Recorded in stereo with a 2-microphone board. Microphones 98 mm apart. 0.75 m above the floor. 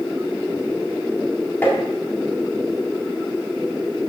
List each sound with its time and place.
1.6 s tapping: 20° left (ahead or behind), 1.6 m